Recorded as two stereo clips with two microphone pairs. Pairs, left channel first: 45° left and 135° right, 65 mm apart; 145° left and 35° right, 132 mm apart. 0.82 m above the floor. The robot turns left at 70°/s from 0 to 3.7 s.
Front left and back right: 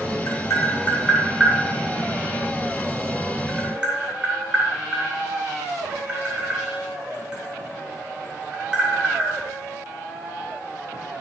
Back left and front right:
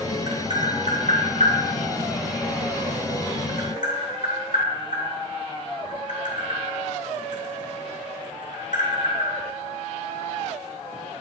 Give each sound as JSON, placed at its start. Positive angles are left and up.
{"t": 0.3, "sound": "tapping", "azimuth_deg": 30, "distance_m": 3.0}